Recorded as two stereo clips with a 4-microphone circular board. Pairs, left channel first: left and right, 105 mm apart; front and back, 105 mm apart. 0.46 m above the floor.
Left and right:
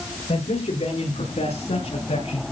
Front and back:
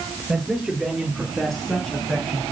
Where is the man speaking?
95° left, 7.5 m; by 2.4 s 80° left, 6.5 m.